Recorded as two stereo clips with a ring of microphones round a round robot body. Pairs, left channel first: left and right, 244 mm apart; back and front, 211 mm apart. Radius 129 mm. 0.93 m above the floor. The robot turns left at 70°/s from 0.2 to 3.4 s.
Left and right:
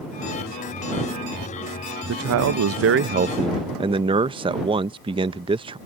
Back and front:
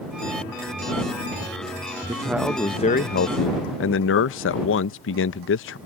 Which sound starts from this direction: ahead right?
A man speaking, at 2.1 s.